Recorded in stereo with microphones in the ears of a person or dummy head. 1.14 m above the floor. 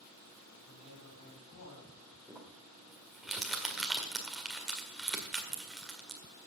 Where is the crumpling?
Centre (ahead or behind), 1.7 m.